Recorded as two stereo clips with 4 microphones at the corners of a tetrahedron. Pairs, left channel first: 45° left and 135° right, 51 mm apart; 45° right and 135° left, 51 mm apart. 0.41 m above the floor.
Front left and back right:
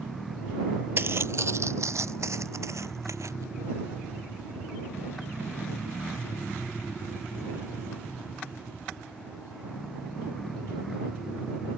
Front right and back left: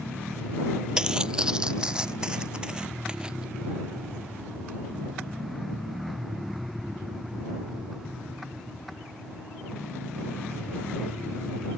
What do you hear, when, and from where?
1.0 s footsteps: 155° right; by 3.5 s 150° right